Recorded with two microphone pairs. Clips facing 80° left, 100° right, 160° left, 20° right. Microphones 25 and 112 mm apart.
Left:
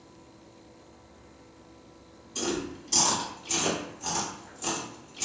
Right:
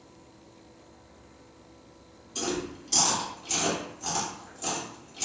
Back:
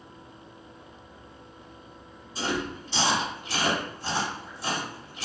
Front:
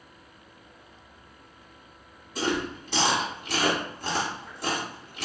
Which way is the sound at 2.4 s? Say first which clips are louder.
Even, front 2 dB; 20° right.